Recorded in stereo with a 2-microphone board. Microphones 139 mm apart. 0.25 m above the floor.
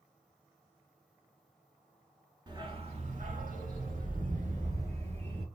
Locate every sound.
2.5 s a dog barking: 30° right (ahead or behind), 0.8 m; by 5.5 s 50° right (ahead or behind), 1.5 m